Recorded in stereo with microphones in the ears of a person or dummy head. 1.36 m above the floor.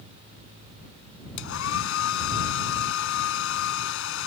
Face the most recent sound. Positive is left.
turn(degrees=75)  # may be behind; listen again after turning